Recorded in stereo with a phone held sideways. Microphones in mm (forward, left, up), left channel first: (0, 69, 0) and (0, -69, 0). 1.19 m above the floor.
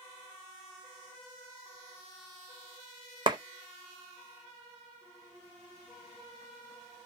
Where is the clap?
35° right (ahead or behind), 0.6 m.